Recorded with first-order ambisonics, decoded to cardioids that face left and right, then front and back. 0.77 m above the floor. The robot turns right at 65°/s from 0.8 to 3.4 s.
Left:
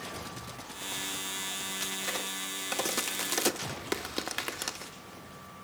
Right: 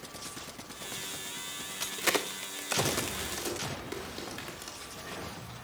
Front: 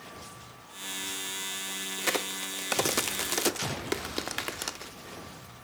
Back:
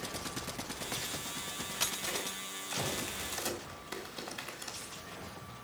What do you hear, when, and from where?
2.0 s a crack: 55° right, 0.8 m; by 4.9 s 35° left, 0.8 m